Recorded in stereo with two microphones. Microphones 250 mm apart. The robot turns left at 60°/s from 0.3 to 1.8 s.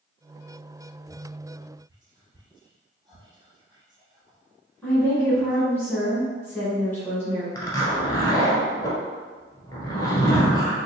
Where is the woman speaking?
10° left (ahead or behind), 1.4 m.